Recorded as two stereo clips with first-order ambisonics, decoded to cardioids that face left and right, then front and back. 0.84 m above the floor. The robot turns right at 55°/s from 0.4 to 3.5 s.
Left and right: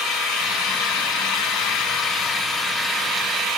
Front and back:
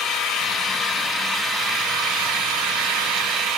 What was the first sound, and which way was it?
An engine running, 45° left.